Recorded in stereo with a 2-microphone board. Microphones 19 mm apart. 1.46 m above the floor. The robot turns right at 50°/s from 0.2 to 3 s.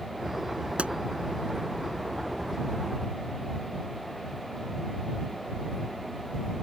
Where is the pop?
90° right; by 0.9 s 85° right.